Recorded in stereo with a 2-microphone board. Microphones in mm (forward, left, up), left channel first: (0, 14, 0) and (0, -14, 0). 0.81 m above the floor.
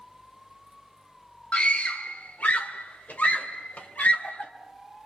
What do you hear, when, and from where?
1.5 s a scream: 45° left (ahead or behind), 1.5 m; by 4.5 s 85° left, 4 m